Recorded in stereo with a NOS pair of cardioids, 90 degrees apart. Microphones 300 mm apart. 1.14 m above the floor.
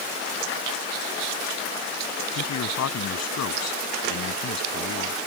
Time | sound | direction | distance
2.3 | a man speaking | 60° left | ?